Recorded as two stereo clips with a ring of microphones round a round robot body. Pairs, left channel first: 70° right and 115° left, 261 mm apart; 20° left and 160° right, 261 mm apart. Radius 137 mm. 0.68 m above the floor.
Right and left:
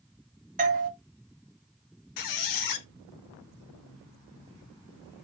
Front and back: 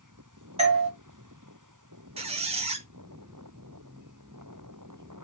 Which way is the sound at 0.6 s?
150° left.